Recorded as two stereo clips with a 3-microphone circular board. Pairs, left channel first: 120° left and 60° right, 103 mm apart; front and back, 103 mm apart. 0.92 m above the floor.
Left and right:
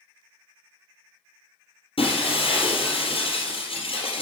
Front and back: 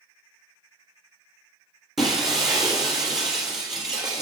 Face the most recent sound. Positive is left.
turn(degrees=95)